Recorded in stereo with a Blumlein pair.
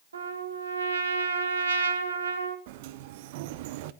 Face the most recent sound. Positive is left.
turn(degrees=-50)